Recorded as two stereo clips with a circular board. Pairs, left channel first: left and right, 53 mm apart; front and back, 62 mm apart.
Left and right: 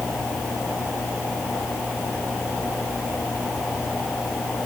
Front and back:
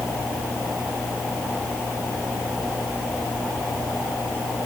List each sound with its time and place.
Only background noise.